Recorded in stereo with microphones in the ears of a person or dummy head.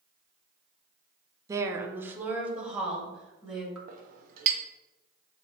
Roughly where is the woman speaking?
Right.